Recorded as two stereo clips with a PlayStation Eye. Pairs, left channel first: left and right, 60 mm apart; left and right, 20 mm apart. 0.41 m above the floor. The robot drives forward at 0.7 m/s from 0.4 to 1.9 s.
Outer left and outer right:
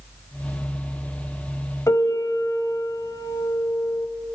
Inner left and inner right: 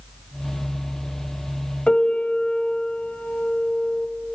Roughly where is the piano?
Left.